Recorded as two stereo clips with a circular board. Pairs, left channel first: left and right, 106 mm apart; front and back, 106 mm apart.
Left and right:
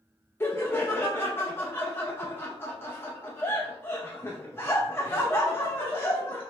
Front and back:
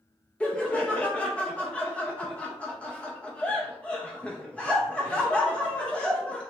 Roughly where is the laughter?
Ahead left.